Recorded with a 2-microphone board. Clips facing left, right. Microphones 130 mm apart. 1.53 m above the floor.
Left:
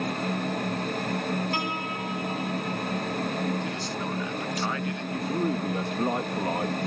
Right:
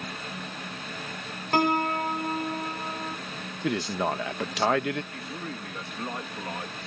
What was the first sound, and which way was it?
A piano, 50° right (ahead or behind).